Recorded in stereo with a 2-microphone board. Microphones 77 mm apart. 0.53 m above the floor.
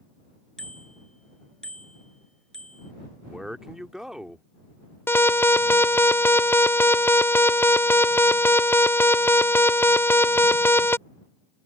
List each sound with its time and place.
0.6 s a bicycle bell: 10° left (ahead or behind)
3.2 s a man speaking: 5° right (ahead or behind)
5.1 s an alarm: 30° left (ahead or behind)